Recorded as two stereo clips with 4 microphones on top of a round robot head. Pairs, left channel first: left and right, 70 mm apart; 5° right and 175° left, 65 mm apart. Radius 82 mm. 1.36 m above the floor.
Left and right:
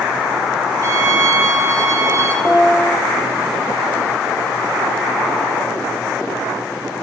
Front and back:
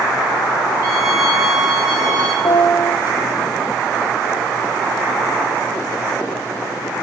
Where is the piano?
30° right, 1.0 m.